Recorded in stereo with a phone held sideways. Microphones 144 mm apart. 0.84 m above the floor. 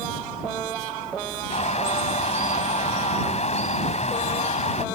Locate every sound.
1.5 s a bird: 55° left (ahead or behind)